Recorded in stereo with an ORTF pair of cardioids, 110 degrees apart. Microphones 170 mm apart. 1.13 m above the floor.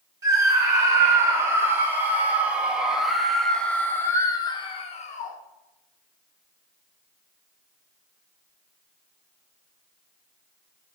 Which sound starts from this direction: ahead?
A scream, at 0.2 s.